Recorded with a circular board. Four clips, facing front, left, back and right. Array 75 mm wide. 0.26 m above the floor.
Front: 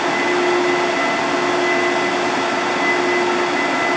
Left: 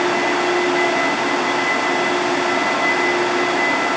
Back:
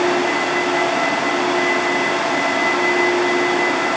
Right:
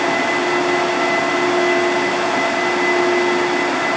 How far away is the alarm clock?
I don't hear an alarm clock.